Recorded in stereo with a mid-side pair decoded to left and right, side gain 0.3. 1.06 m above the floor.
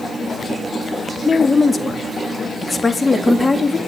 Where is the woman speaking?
25° left, 2 m.